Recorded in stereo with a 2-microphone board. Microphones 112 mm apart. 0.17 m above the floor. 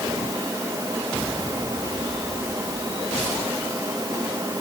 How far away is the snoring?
No snoring in this recording.